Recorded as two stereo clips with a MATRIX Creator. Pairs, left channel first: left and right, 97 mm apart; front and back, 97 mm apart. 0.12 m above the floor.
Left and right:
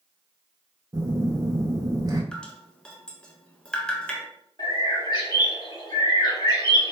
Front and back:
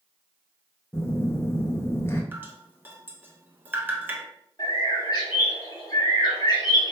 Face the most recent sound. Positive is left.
turn(degrees=40)